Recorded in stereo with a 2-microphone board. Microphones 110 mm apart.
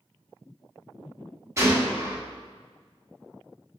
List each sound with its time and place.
1.6 s a gunshot: 25° right (ahead or behind), 1.2 m